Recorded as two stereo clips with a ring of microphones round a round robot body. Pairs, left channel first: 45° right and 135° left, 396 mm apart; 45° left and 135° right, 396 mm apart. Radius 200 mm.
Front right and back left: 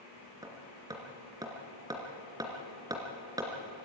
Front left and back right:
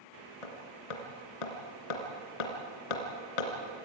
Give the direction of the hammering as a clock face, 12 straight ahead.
10 o'clock.